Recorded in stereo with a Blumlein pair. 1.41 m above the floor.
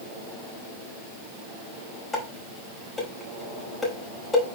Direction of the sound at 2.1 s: 15° left.